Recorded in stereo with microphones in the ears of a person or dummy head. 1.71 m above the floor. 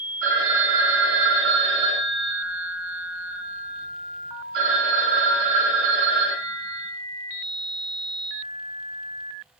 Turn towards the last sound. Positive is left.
turn(degrees=-55)  # may be behind; listen again after turning